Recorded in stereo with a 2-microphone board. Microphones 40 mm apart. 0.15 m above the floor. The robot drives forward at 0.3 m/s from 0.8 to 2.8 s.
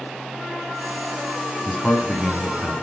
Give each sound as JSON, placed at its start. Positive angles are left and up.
{"t": 1.6, "sound": "a man speaking", "side_deg": 20, "distance_m": 1.2}